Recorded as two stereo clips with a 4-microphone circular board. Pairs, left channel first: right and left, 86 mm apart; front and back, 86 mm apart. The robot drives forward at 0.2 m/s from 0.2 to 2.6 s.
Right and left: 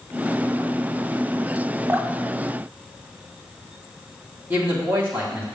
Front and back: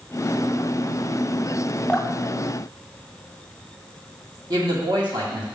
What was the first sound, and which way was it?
Dripping, 70° left.